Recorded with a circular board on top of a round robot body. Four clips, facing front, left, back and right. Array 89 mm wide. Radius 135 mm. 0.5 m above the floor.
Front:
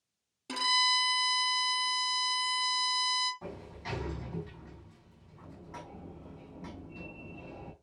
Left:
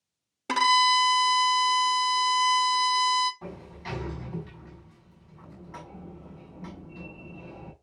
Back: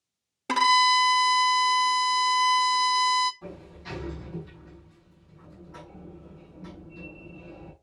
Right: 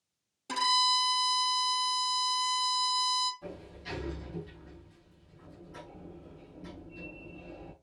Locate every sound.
0.5 s a violin: 140° left, 0.8 m
3.4 s a sliding door: 65° left, 5 m